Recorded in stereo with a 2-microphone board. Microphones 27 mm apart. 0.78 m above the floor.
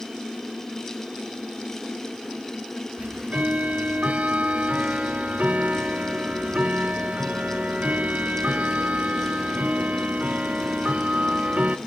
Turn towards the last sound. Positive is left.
turn(degrees=-70)  # may be behind; listen again after turning